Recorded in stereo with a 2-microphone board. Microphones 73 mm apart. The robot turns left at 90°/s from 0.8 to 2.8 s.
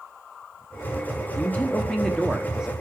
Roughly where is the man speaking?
Left.